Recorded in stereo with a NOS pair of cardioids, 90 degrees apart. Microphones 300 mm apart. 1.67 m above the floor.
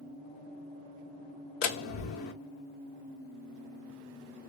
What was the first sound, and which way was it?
A door slam, 65° left.